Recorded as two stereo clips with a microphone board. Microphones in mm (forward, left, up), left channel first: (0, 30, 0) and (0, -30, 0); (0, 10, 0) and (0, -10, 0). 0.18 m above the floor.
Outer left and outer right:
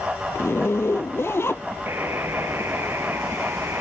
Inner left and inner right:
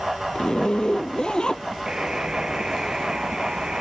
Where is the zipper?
45° left (ahead or behind).